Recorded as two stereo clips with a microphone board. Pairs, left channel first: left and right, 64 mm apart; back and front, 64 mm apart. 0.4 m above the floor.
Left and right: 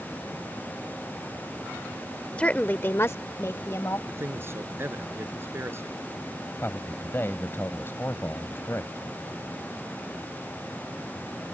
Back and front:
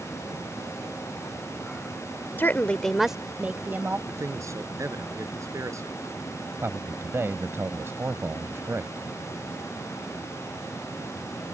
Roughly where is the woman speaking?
Behind left.